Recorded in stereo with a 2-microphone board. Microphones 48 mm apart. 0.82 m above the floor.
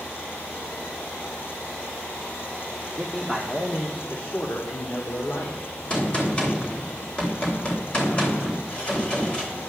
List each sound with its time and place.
3.0 s a man speaking: 5° left (ahead or behind), 1.7 m; by 5.6 s 65° left (ahead or behind), 2.5 m
5.9 s a gunshot: 25° left (ahead or behind), 3 m